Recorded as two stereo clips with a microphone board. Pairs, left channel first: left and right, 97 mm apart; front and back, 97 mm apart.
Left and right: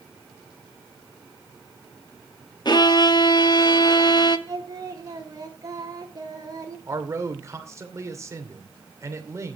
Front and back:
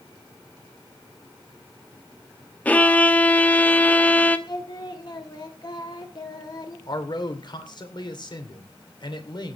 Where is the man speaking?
35° right, 2.5 m.